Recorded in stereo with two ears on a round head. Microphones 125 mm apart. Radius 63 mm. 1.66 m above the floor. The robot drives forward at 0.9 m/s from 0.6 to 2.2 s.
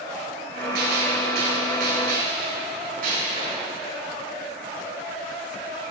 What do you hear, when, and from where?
0.8 s a gunshot: 85° right, 4 m; by 3.7 s 70° right (ahead or behind), 4.5 m